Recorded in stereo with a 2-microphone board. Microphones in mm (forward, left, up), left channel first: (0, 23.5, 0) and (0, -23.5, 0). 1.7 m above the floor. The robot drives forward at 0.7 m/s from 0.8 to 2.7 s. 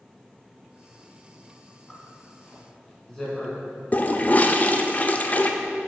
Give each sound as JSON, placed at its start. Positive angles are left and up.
{"t": 1.9, "sound": "a zipper", "side_deg": 10, "distance_m": 2.0}
{"t": 3.9, "sound": "a toilet flushing", "side_deg": 35, "distance_m": 0.5}